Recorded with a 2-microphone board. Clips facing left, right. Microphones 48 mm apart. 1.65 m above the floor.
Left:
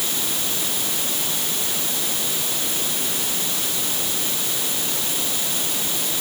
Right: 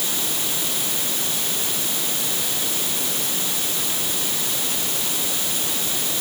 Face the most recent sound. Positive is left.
No sound to turn to.